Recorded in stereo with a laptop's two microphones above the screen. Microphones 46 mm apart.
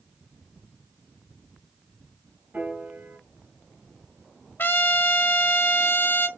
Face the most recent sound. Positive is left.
turn(degrees=50)  # may be behind; listen again after turning